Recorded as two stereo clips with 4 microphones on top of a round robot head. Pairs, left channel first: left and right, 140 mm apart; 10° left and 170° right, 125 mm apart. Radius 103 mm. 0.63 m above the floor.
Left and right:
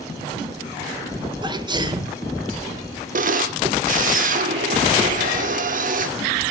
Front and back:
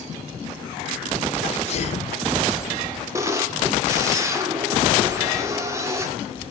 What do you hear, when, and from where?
1.4 s a sneeze: 30° right, 2.5 m
3.1 s a camera shutter: 100° right, 2.5 m